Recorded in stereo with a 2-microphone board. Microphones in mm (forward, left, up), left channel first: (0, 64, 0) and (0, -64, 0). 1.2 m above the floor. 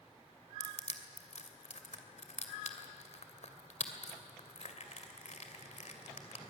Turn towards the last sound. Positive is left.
turn(degrees=60)  # may be behind; listen again after turning